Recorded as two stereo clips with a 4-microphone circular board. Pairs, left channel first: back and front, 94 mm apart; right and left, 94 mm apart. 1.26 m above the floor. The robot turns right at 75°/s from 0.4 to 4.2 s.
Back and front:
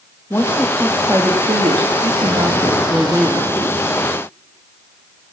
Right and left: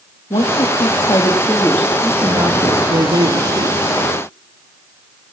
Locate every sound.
0.3 s a woman speaking: 115° right, 3 m; by 3.8 s 140° left, 3 m